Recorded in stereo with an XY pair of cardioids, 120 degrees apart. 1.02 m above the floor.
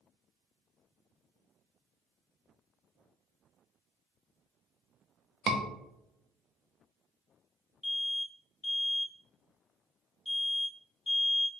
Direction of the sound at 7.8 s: 20° left.